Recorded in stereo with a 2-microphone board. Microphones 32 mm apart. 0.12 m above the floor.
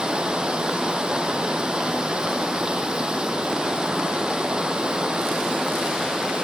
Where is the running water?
30° right (ahead or behind), 1.5 m.